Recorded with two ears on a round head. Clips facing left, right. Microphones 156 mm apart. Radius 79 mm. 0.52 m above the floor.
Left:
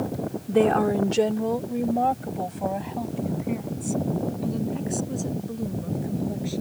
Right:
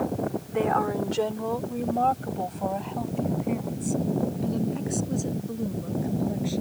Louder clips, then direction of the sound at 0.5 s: Left 7 dB; 40° left (ahead or behind).